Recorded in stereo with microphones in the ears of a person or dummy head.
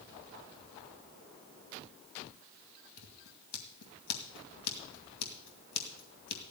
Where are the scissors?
60° left (ahead or behind), 2 m.